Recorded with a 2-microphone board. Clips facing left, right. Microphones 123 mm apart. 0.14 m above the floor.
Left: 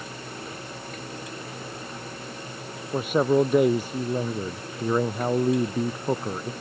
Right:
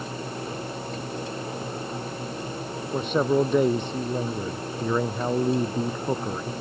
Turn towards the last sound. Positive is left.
turn(degrees=5)  # may be behind; listen again after turning